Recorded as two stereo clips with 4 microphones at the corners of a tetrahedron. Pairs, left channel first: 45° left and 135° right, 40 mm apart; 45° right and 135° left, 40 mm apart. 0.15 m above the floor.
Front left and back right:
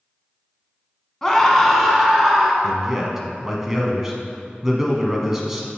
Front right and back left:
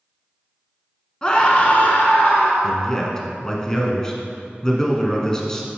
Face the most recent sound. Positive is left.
turn(degrees=-75)